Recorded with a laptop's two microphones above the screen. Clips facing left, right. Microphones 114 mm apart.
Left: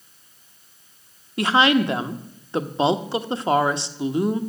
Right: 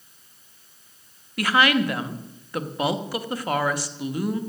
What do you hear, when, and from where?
1.4 s a woman speaking: 25° left (ahead or behind), 1.1 m